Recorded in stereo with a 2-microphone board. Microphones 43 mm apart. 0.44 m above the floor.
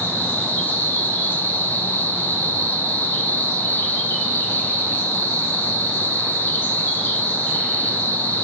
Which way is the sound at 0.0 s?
65° left (ahead or behind).